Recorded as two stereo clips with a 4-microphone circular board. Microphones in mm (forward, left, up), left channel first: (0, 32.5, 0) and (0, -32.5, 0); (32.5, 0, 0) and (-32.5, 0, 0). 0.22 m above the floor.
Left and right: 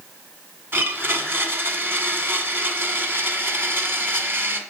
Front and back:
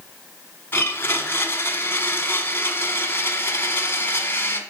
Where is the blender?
45° right, 1.4 m.